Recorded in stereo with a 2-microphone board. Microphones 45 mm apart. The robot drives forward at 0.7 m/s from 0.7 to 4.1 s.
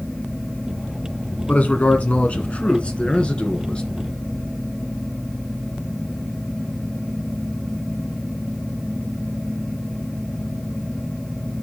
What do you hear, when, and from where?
1.5 s a man speaking: 35° left (ahead or behind), 1.8 m; by 3.8 s 20° left (ahead or behind), 2.5 m